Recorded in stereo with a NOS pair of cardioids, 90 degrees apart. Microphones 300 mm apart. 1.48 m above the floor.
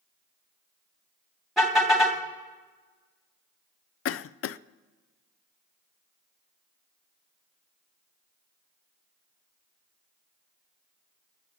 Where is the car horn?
Straight ahead, 2.5 m.